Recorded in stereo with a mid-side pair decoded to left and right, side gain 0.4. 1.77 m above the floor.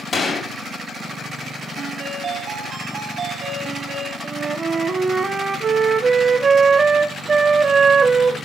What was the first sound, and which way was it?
A gunshot, 30° left.